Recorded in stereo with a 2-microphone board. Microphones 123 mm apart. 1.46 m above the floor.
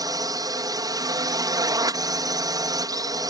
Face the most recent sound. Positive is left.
turn(degrees=-30)  # may be behind; listen again after turning